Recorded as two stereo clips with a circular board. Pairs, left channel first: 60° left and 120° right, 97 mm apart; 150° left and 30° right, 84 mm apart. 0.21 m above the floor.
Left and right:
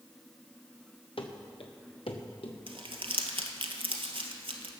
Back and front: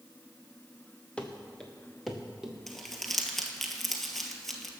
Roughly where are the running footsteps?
Left.